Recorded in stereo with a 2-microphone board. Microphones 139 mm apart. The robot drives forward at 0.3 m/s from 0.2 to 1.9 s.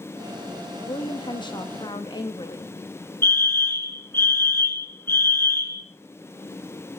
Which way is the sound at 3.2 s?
15° left (ahead or behind).